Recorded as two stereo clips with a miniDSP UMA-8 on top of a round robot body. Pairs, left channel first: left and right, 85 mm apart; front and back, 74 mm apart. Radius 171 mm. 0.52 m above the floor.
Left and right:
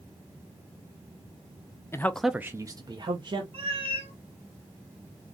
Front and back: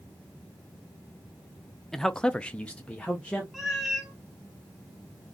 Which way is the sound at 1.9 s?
80° left.